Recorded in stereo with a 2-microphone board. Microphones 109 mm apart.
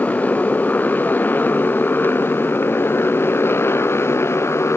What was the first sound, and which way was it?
A motorcycle, 15° left (ahead or behind).